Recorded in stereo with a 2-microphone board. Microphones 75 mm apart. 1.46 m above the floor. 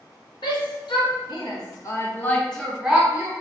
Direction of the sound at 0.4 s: 75° left (ahead or behind).